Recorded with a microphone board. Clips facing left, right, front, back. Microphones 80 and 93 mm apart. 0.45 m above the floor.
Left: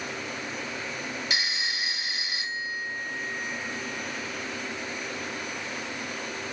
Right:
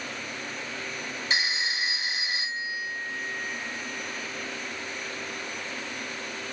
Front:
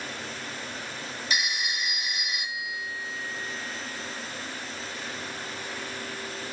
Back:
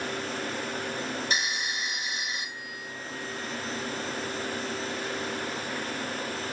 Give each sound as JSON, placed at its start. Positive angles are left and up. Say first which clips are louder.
{"t": 1.3, "sound": "a phone ringing", "louder": "right 5 dB, even", "azimuth_deg": -140, "distance_m": 0.8}